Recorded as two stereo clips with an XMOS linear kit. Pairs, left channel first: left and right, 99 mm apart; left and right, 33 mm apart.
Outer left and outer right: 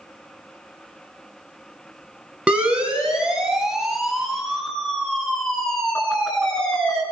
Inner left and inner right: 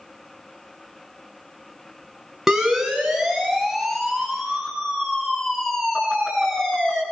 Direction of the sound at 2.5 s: 10° right (ahead or behind).